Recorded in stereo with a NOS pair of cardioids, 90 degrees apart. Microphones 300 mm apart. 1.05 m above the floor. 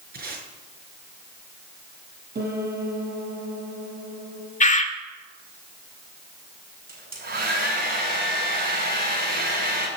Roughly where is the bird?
Ahead left.